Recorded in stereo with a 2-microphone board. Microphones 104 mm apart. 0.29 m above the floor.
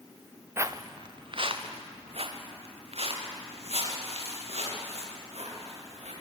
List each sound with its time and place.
0.6 s footsteps: 25° right (ahead or behind), 1.2 m; by 6.1 s 80° right, 8.5 m